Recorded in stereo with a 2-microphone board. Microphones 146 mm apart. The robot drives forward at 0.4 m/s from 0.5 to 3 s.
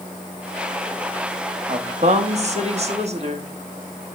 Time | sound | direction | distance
1.7 | a woman speaking | 50° right (ahead or behind) | 1.1 m